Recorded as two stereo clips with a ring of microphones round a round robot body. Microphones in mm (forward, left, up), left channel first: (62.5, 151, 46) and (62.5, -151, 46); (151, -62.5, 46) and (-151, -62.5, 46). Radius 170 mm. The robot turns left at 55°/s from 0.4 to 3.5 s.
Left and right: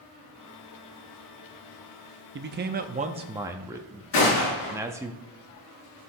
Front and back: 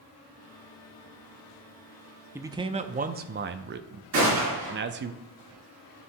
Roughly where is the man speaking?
Right.